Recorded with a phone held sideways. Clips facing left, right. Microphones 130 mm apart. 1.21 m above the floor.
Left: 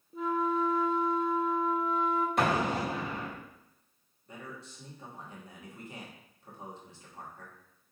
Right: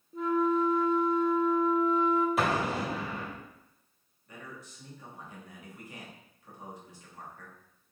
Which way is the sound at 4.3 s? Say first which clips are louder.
Left 1 dB; 30° left (ahead or behind).